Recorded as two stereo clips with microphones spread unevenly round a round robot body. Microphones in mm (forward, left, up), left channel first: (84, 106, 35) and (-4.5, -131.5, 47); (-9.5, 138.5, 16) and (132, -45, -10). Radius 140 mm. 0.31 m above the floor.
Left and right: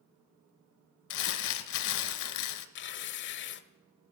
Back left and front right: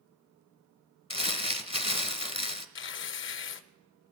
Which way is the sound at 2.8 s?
100° left.